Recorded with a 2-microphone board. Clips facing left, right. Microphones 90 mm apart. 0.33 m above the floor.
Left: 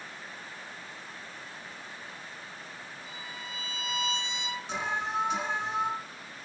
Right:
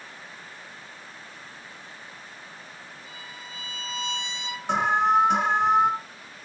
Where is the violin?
20° left (ahead or behind), 6.5 m.